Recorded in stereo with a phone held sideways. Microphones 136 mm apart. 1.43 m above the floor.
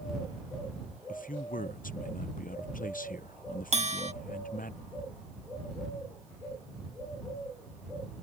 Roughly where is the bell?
Right.